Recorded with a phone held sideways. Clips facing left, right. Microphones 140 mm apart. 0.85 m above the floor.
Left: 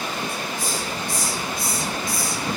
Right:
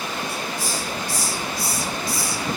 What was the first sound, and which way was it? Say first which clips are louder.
A hiss: even; 55° left (ahead or behind).